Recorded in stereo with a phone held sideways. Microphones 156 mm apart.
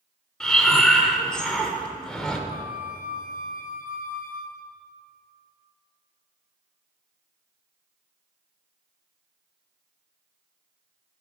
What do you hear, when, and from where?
0.4 s breathing: 5° left (ahead or behind), 1.0 m
2.5 s a flute: 60° left (ahead or behind), 0.7 m